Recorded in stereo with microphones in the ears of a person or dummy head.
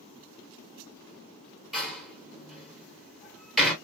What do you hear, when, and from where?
1.7 s a door slam: centre (ahead or behind), 1.5 m